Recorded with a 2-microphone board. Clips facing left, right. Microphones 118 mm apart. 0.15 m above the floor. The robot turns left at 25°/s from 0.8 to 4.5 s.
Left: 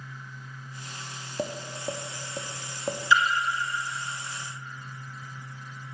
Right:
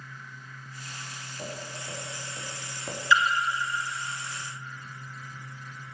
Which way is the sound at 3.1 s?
20° left (ahead or behind).